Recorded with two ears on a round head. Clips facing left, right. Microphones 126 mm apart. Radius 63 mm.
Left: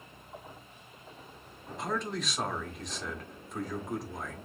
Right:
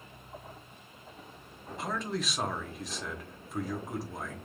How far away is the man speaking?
About 0.9 m.